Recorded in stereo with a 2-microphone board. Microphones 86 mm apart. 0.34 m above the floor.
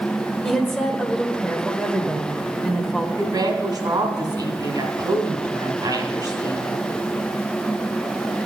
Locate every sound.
0.4 s a woman speaking: 5° left (ahead or behind), 0.9 m
3.2 s a woman speaking: 50° right (ahead or behind), 2 m